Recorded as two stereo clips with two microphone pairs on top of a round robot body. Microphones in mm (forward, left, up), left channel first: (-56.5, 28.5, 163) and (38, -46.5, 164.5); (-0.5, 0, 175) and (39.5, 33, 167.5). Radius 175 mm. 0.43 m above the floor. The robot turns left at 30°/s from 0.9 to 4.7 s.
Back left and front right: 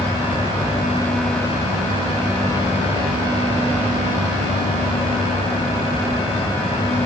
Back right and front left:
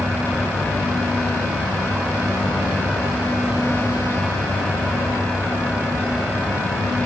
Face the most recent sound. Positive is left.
No sound to turn to.